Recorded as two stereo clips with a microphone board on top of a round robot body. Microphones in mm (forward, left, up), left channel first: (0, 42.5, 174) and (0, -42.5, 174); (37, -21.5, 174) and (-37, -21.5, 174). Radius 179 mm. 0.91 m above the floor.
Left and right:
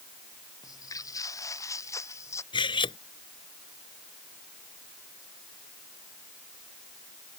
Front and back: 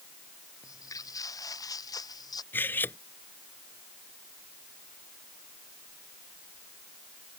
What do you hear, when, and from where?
0.6 s footsteps: 40° left; by 2.4 s 35° left
2.5 s cutlery clinking: 65° left